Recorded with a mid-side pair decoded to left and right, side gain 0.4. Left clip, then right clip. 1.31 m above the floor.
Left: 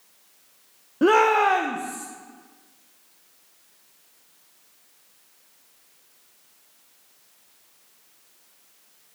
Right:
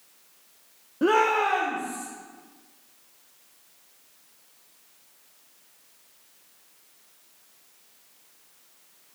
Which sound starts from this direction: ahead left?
A shout, at 1.0 s.